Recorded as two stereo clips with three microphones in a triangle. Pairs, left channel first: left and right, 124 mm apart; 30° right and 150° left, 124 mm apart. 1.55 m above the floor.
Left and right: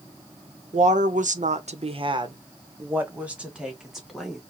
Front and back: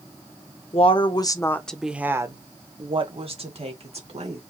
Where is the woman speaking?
70° right, 1.1 m; by 4.4 s straight behind, 2.5 m.